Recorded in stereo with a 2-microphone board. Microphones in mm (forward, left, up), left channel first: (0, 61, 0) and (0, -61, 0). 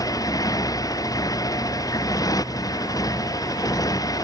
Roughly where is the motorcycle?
Left.